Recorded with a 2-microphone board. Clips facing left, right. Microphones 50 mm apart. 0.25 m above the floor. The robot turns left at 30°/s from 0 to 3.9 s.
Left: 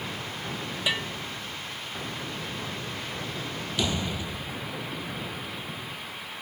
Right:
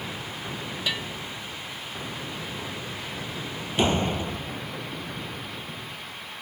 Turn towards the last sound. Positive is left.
turn(degrees=-35)  # may be behind; listen again after turning